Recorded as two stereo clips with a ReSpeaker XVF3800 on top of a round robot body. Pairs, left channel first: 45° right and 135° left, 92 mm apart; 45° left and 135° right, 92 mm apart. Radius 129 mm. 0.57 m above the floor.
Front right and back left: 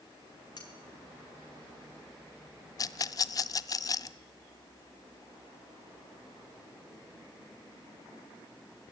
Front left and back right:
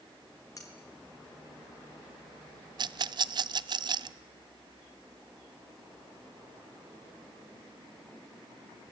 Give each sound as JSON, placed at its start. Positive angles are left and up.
{"t": 0.6, "sound": "cutlery clinking", "azimuth_deg": -5, "distance_m": 6.0}
{"t": 2.8, "sound": "a rattle", "azimuth_deg": -95, "distance_m": 0.6}